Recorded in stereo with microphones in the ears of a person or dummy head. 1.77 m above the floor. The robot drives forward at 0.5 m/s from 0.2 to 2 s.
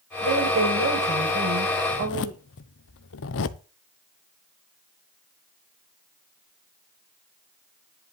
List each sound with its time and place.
0.2 s a woman speaking: 65° right (ahead or behind), 6 m; by 2.4 s 55° right (ahead or behind), 6.5 m
1.9 s a zipper: 65° left (ahead or behind), 1.0 m